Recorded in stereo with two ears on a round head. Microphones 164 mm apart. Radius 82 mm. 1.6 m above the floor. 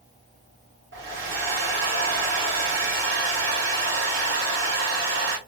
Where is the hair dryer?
65° right (ahead or behind), 1.5 m.